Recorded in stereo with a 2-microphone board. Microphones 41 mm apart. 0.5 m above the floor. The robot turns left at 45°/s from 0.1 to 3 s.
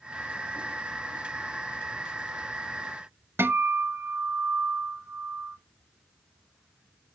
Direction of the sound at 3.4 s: 75° right (ahead or behind).